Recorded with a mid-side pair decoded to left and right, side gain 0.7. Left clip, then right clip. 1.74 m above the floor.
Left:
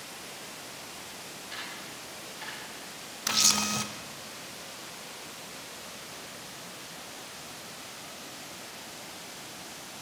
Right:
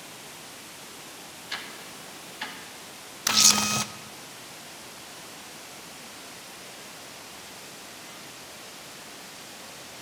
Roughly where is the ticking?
Ahead right.